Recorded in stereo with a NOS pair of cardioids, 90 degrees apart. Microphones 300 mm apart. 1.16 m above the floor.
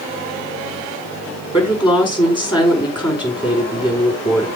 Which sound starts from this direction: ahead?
A woman speaking, at 1.5 s.